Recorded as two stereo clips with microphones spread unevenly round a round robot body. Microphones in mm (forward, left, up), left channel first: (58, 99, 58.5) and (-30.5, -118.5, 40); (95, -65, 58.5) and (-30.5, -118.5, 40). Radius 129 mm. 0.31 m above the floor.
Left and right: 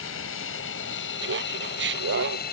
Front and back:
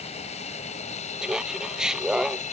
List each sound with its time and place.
0.0 s an aircraft: 65° left; by 2.5 s 30° left
1.2 s laughter: 70° right